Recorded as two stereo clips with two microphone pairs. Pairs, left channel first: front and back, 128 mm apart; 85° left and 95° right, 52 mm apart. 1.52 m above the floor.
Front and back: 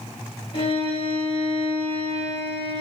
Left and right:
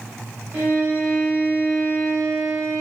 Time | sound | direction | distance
0.5 | a violin | 40° right | 0.8 m